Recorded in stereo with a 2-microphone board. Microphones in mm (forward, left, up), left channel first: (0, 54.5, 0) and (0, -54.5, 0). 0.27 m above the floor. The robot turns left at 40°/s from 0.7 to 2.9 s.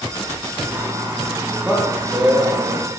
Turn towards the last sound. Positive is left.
turn(degrees=-60)